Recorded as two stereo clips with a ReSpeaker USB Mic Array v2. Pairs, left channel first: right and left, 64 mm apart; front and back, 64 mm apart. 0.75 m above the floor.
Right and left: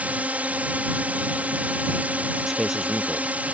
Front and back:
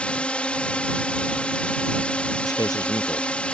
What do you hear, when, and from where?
0.0 s a drone: 50° left
2.4 s a man speaking: 5° left